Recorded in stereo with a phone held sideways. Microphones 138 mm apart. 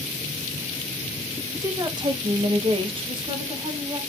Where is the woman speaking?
20° right (ahead or behind), 0.8 m; by 4.0 s 25° right (ahead or behind), 1.5 m.